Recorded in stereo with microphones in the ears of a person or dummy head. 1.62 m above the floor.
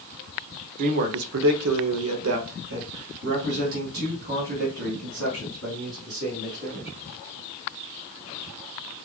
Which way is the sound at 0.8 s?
40° right (ahead or behind).